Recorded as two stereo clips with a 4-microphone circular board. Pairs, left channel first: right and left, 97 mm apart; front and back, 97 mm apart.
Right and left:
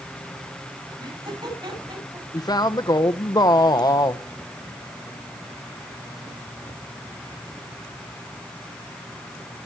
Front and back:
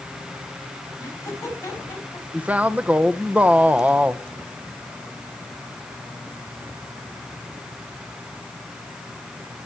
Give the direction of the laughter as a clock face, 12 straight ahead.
10 o'clock.